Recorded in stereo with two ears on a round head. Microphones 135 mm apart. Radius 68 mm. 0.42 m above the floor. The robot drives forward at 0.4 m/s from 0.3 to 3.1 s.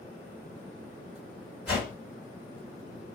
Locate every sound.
1.7 s a whoosh: 5° right (ahead or behind), 1.8 m